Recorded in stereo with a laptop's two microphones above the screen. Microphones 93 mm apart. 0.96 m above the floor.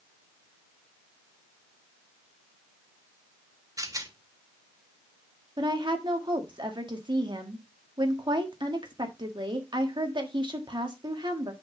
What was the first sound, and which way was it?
A rattle, 35° right (ahead or behind).